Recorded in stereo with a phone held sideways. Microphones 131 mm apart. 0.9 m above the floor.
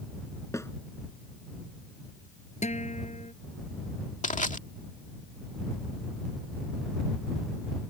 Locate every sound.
0.5 s a snare drum: 20° left (ahead or behind)
2.6 s a guitar: 60° left (ahead or behind)
4.2 s crushing: 75° left (ahead or behind)